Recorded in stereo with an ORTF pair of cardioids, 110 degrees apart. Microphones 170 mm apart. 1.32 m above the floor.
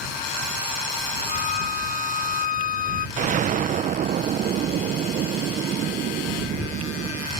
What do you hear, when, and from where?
1.3 s a violin: 50° left
3.2 s an explosion: 50° right